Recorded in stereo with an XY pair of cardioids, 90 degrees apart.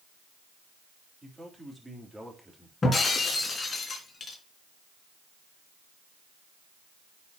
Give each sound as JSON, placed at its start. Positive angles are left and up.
{"t": 1.2, "sound": "a man speaking", "azimuth_deg": -20, "distance_m": 3.0}
{"t": 2.8, "sound": "breaking glass", "azimuth_deg": 35, "distance_m": 3.0}